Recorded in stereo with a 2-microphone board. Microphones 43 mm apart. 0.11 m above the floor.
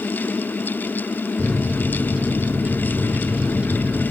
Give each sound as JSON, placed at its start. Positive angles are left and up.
{"t": 1.4, "sound": "a microwave", "side_deg": -30, "distance_m": 1.0}